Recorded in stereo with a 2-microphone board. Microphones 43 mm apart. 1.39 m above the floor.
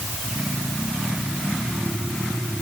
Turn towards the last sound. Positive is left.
No sound to turn to.